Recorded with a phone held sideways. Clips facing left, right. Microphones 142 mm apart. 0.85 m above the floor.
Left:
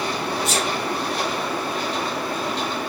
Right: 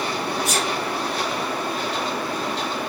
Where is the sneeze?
25° left (ahead or behind), 2.5 m.